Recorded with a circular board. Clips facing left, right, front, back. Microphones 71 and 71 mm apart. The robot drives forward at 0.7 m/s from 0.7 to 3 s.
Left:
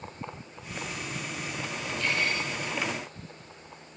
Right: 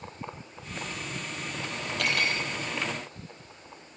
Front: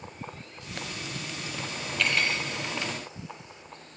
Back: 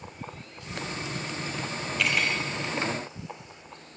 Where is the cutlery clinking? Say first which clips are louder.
Right 1 dB, even; 90° right, 2.5 m; by 2.4 s 100° right, 2.5 m.